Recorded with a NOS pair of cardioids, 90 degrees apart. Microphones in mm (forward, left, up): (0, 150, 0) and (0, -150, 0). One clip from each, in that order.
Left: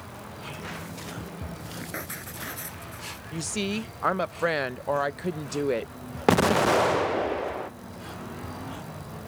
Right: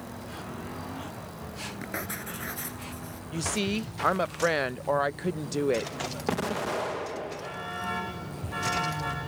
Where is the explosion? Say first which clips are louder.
Left 10 dB; 40° left.